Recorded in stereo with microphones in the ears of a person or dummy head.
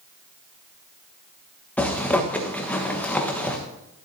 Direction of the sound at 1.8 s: 10° left (ahead or behind).